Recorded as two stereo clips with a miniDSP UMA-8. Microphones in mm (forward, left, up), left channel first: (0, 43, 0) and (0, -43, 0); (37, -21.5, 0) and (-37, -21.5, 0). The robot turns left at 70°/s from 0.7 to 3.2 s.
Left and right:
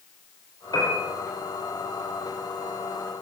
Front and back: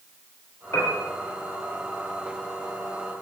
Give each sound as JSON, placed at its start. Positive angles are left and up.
{"t": 0.7, "sound": "a piano", "azimuth_deg": 50, "distance_m": 7.5}